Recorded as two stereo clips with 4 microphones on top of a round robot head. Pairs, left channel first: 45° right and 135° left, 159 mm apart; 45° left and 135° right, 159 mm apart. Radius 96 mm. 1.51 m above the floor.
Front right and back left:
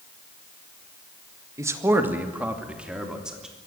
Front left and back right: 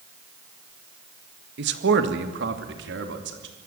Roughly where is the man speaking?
Behind right.